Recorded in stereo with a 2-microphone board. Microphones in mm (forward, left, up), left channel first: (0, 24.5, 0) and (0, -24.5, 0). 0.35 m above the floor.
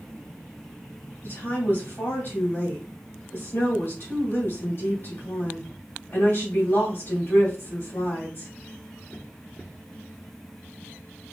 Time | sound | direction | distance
1.2 | a woman speaking | 55° left (ahead or behind) | 2.0 m